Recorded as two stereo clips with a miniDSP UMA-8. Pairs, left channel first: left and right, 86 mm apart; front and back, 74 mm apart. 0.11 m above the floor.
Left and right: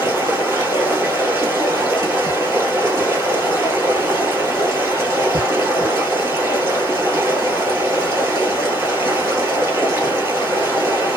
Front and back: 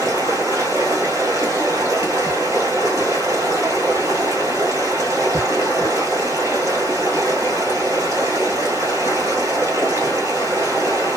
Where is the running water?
145° right, 1.8 m.